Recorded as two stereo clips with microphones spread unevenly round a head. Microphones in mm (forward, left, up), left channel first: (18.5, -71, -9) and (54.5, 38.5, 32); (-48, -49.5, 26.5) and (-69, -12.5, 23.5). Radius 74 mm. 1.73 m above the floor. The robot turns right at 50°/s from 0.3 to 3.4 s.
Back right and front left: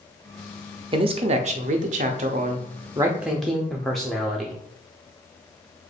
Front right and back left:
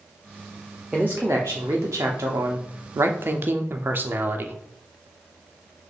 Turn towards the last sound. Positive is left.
turn(degrees=155)